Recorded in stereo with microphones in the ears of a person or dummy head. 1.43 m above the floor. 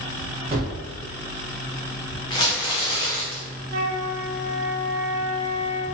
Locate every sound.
0.5 s a gunshot: 35° right (ahead or behind), 0.8 m
2.3 s crumpling: 25° left (ahead or behind), 0.6 m
3.7 s a flute: 50° right (ahead or behind), 0.6 m